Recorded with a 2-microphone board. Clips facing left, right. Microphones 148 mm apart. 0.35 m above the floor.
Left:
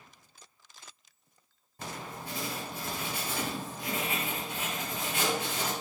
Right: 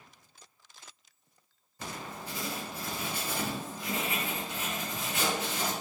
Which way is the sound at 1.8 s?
60° left (ahead or behind).